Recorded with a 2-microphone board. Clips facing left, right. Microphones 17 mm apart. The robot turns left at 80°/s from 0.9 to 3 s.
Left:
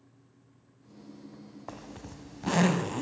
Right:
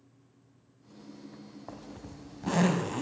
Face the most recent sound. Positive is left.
turn(degrees=5)